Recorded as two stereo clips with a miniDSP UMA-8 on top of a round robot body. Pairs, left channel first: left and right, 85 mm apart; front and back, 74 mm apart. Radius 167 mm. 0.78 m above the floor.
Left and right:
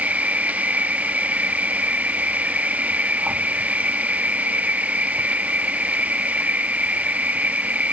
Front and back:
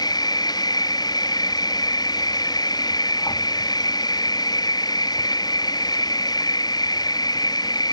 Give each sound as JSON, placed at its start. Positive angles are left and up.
{"t": 0.0, "sound": "an insect", "azimuth_deg": -15}